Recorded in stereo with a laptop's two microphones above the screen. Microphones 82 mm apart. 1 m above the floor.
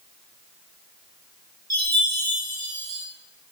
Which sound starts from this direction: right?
A chime, at 1.7 s.